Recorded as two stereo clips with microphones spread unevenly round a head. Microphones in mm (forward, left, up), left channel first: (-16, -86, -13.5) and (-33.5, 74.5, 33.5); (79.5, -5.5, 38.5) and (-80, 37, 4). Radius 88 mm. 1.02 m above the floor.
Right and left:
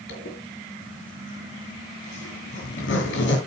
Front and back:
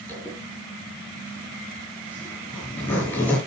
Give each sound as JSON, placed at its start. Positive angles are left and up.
{"t": 0.1, "sound": "a zipper", "azimuth_deg": -95, "distance_m": 6.5}